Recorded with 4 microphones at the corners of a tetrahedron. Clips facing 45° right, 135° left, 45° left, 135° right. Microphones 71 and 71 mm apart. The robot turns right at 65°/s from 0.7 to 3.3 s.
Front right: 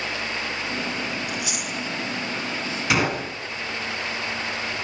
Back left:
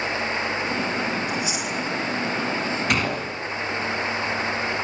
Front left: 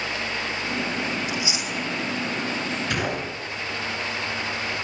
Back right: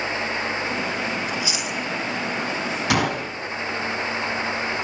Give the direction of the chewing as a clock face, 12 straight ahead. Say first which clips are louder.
Back left 3 dB, back right 1 dB; 1 o'clock.